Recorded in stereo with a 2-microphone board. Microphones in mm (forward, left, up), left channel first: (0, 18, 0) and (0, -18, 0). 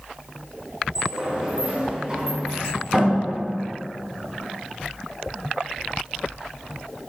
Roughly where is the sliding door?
Centre.